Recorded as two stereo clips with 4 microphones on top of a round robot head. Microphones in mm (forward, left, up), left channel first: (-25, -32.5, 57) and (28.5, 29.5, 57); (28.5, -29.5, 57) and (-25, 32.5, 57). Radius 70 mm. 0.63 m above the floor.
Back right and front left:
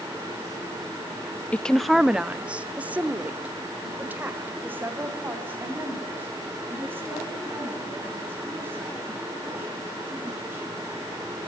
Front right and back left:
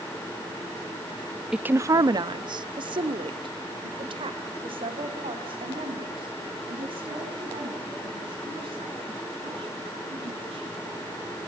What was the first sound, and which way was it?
A woman speaking, 165° right.